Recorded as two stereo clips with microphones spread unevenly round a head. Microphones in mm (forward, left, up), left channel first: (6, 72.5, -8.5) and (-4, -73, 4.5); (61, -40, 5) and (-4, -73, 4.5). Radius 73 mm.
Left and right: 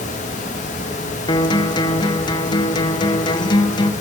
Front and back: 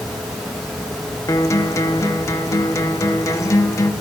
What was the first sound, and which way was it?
A guitar, 35° left.